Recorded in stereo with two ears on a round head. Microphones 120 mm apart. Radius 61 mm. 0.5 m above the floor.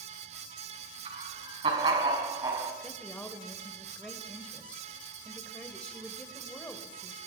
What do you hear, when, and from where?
1.1 s laughter: 45° right (ahead or behind), 6 m; by 2.7 s 20° right (ahead or behind), 5 m
2.8 s a woman speaking: 10° left (ahead or behind), 2.5 m